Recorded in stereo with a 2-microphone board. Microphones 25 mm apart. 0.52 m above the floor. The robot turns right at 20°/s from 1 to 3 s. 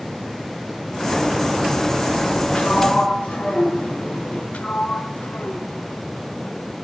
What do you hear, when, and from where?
2.5 s a sliding door: 65° left (ahead or behind), 8.5 m; by 4.4 s 75° left (ahead or behind), 8.5 m
4.5 s a sliding door: 65° left (ahead or behind), 1.2 m